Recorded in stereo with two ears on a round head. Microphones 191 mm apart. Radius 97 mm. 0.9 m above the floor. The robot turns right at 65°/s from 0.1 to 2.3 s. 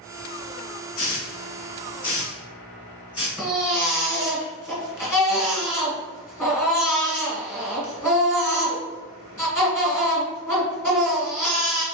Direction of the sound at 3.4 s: 15° left (ahead or behind).